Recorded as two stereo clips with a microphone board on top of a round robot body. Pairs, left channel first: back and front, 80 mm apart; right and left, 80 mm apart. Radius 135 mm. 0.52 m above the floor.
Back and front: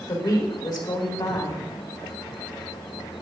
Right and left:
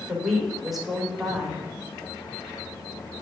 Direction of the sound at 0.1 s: 175° left.